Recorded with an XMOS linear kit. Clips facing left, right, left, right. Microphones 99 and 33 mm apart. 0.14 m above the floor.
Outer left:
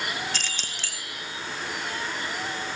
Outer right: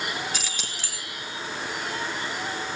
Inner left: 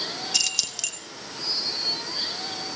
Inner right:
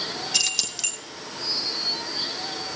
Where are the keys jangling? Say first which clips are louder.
Even, inner right 2 dB; 5° right (ahead or behind), 2.5 m.